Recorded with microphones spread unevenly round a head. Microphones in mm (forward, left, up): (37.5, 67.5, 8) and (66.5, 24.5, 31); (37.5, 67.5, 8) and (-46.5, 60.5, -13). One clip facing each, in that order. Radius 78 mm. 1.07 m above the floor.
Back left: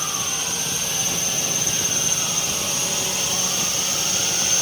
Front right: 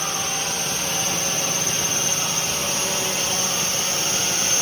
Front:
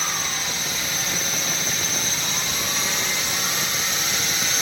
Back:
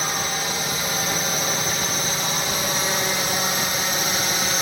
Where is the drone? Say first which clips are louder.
Front right 2 dB, back 3 dB; 120° right; by 4.6 s 130° right.